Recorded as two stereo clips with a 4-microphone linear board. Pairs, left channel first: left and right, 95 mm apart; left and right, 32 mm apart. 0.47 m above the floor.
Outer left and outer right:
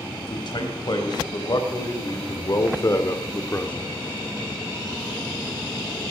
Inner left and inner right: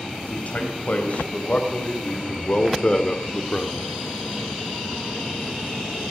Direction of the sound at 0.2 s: 55° left (ahead or behind).